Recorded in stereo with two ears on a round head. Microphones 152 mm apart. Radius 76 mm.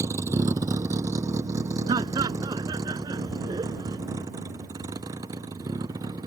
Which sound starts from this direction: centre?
A vehicle, at 0.0 s.